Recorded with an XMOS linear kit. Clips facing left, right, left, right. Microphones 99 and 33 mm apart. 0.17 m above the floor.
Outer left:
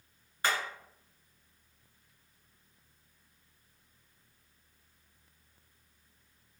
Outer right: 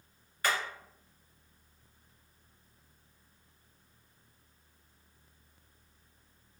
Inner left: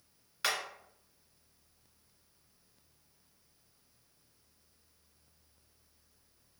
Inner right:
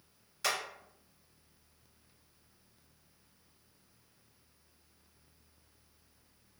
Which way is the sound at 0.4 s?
25° left (ahead or behind).